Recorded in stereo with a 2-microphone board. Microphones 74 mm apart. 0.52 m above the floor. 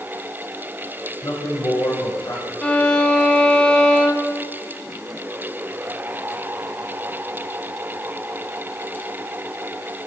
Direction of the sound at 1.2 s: 70° left (ahead or behind).